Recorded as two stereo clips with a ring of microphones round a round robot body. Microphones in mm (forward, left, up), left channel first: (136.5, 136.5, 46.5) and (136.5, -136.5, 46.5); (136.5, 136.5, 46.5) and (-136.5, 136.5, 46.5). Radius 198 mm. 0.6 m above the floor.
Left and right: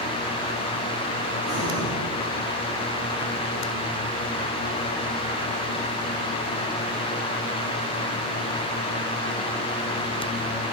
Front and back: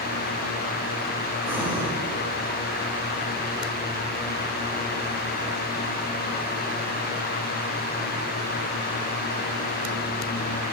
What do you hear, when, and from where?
1.4 s breathing: 100° left, 4 m